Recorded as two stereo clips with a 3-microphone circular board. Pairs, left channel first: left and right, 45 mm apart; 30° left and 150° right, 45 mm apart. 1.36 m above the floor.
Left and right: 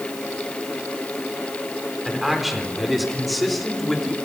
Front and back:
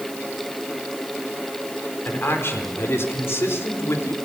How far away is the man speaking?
About 4 m.